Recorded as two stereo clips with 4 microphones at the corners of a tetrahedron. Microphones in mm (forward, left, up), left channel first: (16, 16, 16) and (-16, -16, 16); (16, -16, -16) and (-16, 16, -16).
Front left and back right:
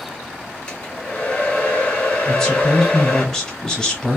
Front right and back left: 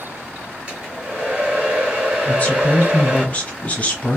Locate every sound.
0.7 s a hair dryer: 90° left, 1.8 m
2.2 s a man speaking: 25° right, 1.1 m